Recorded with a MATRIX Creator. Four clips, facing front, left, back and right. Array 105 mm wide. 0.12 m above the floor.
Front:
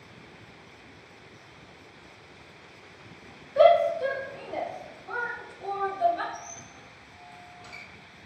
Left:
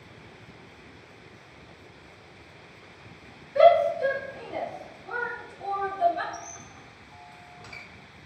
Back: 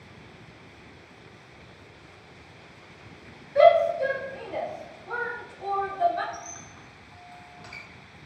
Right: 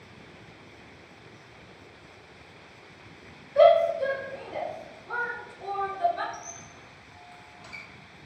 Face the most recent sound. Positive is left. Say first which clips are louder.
# left 2 dB, back 1 dB
turn(degrees=140)